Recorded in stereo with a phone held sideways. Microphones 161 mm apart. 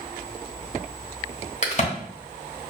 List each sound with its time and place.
1.6 s a crack: 45° left (ahead or behind), 1.0 m